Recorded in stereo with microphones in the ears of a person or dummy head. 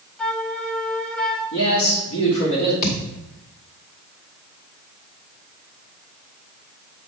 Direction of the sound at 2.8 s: 45° left (ahead or behind).